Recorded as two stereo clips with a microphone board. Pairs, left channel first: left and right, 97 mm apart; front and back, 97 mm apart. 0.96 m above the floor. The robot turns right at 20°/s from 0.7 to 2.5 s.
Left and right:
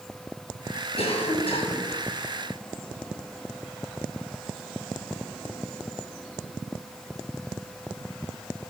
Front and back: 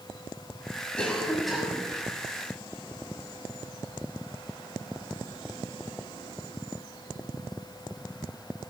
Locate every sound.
1.0 s a cough: 80° left, 7 m; by 1.9 s 100° left, 7 m